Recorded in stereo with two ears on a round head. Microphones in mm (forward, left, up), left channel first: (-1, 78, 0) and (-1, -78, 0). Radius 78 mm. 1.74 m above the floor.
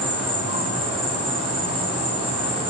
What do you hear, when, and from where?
0.0 s an insect: 35° right (ahead or behind), 5 m